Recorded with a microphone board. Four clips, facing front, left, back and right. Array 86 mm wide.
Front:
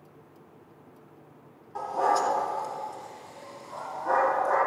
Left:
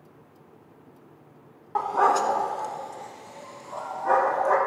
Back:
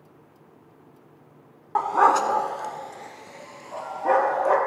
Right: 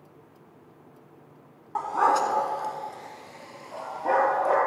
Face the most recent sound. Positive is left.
turn(degrees=-160)